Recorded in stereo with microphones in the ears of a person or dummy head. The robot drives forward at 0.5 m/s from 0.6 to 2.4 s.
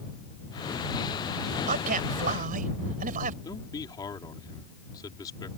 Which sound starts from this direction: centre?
A man speaking, at 3.4 s.